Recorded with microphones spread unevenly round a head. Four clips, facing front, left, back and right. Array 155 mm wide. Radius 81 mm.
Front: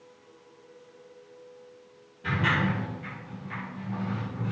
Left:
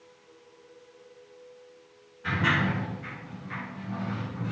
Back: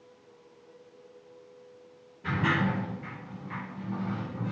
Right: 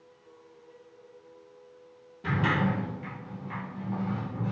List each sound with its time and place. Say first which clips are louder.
2.2 s a sliding door: even, front 1 dB; 100° right, 3 m